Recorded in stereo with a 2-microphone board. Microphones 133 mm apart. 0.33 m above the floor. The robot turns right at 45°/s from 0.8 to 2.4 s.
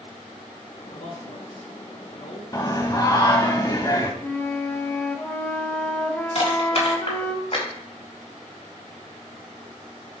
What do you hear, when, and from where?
0.9 s a man speaking: 60° left, 5 m; by 2.4 s 125° left, 5 m
2.5 s singing: 30° left (ahead or behind), 1.2 m
4.2 s a flute: 10° left (ahead or behind), 1.0 m
6.3 s crushing: 55° left (ahead or behind), 4 m